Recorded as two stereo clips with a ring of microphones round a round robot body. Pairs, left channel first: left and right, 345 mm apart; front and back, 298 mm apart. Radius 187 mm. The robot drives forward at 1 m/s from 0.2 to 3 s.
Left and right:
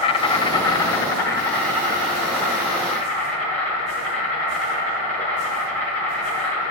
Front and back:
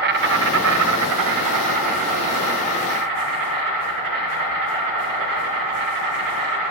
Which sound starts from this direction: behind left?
An insect, at 0.0 s.